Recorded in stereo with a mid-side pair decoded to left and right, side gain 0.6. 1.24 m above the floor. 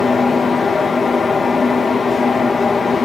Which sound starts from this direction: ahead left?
A fan, at 0.0 s.